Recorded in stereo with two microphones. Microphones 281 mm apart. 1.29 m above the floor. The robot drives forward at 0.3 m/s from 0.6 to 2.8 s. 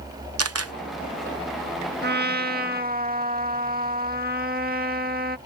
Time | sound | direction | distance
0.4 | a camera shutter | 60° right (ahead or behind) | ?
2.0 | a trumpet | 35° right (ahead or behind) | ?